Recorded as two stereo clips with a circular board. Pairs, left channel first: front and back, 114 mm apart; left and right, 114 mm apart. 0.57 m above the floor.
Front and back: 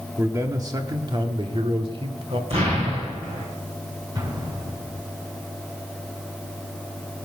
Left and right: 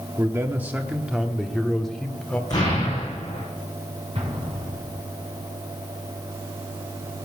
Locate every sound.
0.2 s a man speaking: 135° right, 1.1 m; by 2.4 s 170° left, 1.8 m
2.5 s an explosion: 145° left, 7.5 m
4.2 s an explosion: 125° right, 7 m